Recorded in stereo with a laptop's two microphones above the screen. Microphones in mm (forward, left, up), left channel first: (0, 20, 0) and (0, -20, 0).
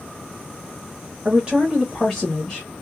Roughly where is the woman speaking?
Right.